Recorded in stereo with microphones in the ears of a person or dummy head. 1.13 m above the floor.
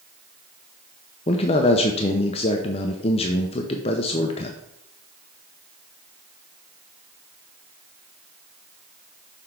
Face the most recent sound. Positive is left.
turn(degrees=25)  # may be behind; listen again after turning